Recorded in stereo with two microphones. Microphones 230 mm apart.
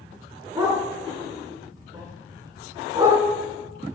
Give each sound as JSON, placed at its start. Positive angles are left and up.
{"t": 0.6, "sound": "a dog barking", "side_deg": -15, "distance_m": 6.0}